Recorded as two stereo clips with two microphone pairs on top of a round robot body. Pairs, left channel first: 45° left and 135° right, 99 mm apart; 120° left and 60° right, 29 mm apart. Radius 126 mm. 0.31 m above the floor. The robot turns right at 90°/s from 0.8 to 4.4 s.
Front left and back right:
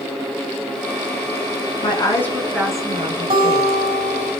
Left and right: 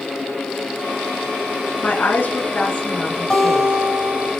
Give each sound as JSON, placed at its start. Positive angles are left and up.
{"t": 1.8, "sound": "a woman speaking", "azimuth_deg": 85, "distance_m": 4.0}
{"t": 3.3, "sound": "a guitar", "azimuth_deg": -165, "distance_m": 4.5}